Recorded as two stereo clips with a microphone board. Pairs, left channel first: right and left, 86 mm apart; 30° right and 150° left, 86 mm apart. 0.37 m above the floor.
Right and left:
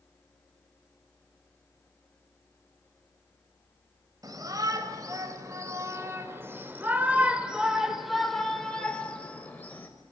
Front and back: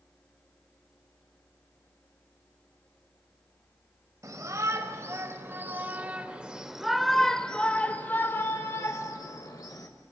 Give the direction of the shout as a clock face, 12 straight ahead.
8 o'clock.